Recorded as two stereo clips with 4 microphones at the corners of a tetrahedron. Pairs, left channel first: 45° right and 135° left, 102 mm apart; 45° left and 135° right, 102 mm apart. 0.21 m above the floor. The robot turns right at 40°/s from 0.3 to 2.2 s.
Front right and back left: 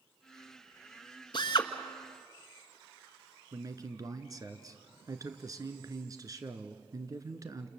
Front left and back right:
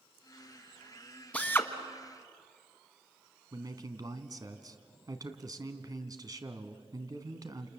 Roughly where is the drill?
Ahead right.